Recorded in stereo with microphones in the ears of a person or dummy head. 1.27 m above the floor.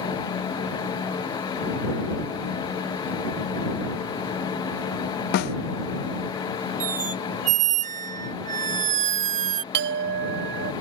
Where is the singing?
I don't hear singing.